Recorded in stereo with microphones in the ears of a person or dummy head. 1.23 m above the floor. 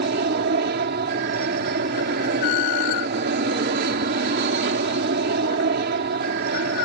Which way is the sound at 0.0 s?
50° right (ahead or behind).